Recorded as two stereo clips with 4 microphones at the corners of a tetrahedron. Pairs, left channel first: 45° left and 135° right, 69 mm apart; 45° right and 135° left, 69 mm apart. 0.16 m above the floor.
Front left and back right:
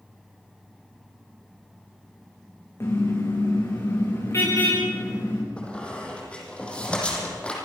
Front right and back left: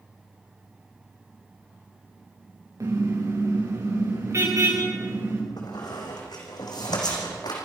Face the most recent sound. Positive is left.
turn(degrees=-30)